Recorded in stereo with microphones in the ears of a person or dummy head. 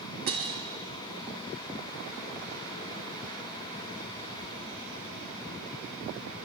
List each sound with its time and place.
0.3 s breaking glass: 40° right (ahead or behind), 1.6 m